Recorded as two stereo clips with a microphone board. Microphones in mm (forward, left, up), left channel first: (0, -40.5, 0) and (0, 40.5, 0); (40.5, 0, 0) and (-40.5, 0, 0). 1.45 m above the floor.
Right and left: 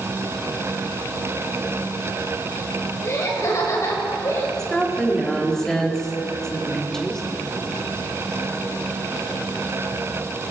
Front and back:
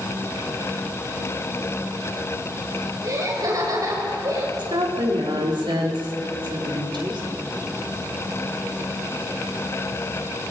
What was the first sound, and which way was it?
Laughter, 140° right.